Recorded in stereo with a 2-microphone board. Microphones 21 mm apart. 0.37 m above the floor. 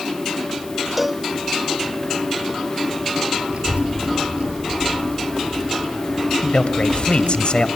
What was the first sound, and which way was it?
A cowbell, 5° right (ahead or behind).